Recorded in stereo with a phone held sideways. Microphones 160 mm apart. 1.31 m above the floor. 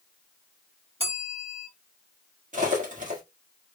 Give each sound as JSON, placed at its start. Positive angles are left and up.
{"t": 1.0, "sound": "a bell", "side_deg": -40, "distance_m": 2.5}
{"t": 2.5, "sound": "cutlery clinking", "side_deg": -50, "distance_m": 1.7}